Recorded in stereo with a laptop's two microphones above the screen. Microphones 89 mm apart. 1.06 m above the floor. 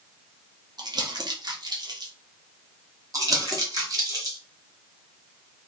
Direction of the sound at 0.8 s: 50° right (ahead or behind).